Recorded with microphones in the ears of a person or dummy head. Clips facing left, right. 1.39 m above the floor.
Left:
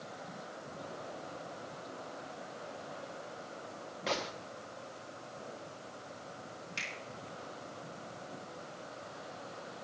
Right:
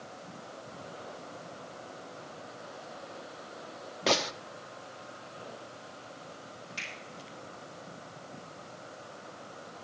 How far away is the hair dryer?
I don't hear a hair dryer.